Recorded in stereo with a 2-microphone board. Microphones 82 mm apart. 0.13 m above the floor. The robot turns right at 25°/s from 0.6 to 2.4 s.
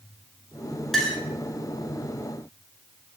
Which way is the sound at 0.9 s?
5° left (ahead or behind).